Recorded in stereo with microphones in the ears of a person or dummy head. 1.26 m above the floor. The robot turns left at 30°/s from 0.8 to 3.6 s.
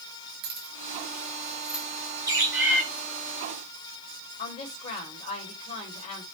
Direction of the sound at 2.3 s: 15° right (ahead or behind).